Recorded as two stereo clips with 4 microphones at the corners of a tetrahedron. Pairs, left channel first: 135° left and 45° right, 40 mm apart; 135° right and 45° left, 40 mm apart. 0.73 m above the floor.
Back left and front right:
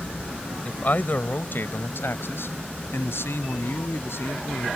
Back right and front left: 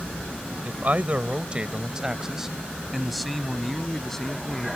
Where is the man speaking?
85° left; by 4.7 s 145° left.